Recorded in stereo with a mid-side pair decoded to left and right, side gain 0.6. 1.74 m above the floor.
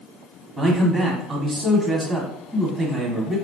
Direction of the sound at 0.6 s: 20° right.